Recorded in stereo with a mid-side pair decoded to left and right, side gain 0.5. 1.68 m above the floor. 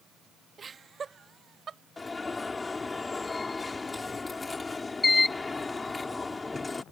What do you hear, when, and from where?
0.6 s laughter: 35° right; by 1.8 s 45° right
2.0 s an alarm: 20° left